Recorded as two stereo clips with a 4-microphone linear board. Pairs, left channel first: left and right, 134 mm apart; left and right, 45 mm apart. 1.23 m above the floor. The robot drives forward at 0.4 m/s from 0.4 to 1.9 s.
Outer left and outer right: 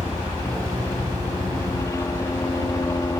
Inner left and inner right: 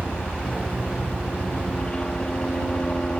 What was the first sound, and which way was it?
A helicopter, 25° left (ahead or behind).